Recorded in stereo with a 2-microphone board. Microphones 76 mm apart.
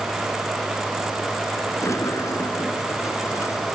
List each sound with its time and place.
1.8 s a sliding door: 45° left (ahead or behind)